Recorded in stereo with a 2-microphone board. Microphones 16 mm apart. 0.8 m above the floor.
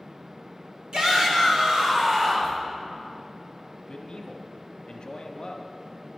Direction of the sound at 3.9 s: 55° left (ahead or behind).